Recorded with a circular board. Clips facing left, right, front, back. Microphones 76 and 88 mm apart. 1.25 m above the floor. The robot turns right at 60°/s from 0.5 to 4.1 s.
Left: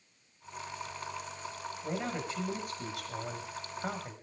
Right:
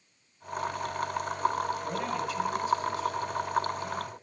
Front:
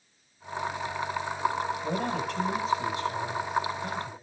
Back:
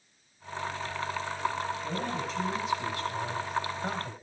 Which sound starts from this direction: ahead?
A man speaking, at 1.8 s.